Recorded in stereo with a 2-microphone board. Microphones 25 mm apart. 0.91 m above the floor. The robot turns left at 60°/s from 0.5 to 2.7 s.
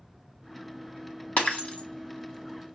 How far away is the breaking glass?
About 1.1 m.